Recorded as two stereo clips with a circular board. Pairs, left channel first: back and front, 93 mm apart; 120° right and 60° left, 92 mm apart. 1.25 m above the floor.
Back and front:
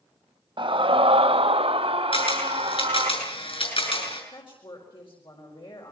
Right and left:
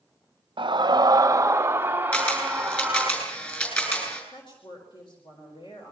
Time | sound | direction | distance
0.6 | a scream | 30° left | 0.8 m
2.1 | a camera shutter | 170° left | 7 m
4.3 | a woman speaking | 155° right | 4.5 m